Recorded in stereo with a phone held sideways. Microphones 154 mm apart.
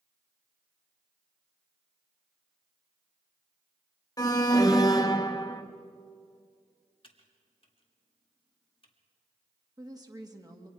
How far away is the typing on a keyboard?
About 1.9 m.